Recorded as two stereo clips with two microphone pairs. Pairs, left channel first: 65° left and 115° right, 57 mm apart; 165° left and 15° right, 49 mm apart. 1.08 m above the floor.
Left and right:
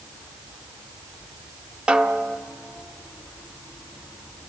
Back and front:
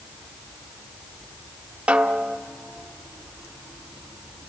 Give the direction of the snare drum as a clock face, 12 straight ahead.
2 o'clock.